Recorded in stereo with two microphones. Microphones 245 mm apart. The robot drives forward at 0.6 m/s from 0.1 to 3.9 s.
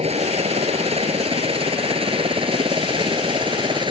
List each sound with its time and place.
0.0 s a helicopter: 25° right (ahead or behind); by 3.9 s 20° right (ahead or behind)